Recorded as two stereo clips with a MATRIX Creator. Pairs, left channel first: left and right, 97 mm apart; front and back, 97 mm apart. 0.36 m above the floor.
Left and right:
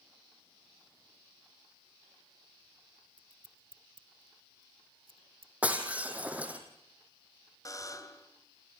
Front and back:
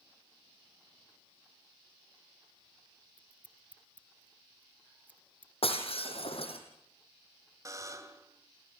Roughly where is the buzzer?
Behind left.